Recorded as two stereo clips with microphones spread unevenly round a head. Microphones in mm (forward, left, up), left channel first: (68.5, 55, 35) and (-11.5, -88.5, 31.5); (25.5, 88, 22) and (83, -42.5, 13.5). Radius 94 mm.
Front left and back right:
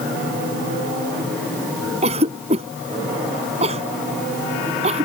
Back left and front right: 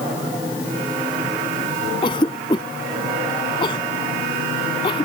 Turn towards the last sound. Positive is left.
turn(degrees=180)